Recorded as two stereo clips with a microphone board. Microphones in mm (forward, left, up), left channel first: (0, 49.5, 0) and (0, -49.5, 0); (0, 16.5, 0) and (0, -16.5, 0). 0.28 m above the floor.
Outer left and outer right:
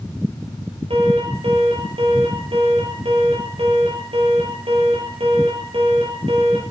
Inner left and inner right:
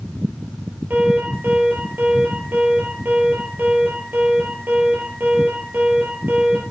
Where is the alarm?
70° right (ahead or behind), 8.5 m.